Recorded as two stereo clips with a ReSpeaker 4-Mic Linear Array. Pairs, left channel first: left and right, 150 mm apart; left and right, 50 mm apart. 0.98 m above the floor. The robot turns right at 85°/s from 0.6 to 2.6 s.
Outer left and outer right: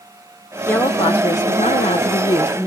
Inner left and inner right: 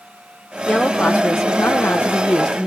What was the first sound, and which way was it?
A woman speaking, 10° left.